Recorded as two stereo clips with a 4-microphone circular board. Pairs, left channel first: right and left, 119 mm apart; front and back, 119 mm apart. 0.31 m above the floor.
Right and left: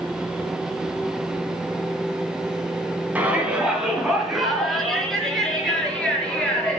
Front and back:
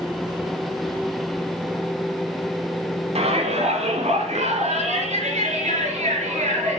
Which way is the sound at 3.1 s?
165° left.